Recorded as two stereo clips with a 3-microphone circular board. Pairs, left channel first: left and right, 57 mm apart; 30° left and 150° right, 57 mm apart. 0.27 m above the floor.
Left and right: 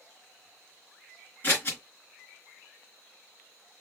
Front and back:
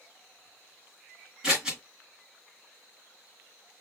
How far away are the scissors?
About 2.0 m.